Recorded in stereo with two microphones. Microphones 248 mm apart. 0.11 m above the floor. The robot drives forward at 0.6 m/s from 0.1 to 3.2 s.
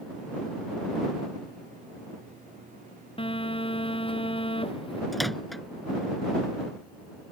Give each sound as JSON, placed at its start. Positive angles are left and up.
{"t": 3.2, "sound": "a phone buzzing", "side_deg": 20}
{"t": 5.1, "sound": "a microwave", "side_deg": 0}